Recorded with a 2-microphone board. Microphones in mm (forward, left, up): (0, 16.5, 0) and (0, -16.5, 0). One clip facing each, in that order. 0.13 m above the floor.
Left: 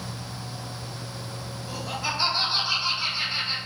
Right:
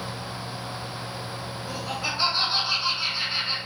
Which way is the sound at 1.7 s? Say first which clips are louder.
Even; 20° right (ahead or behind).